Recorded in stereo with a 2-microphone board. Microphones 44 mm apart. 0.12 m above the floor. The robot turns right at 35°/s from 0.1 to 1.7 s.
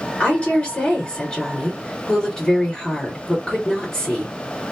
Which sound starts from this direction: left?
A woman speaking, at 0.2 s.